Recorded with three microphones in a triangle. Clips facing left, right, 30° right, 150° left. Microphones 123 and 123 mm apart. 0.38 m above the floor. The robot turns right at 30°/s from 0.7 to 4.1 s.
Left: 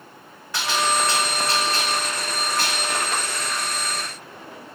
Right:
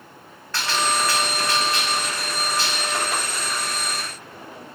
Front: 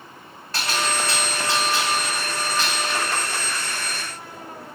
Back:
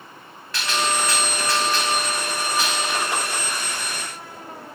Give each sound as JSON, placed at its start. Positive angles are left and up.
{"t": 0.5, "sound": "a gunshot", "azimuth_deg": 15, "distance_m": 2.5}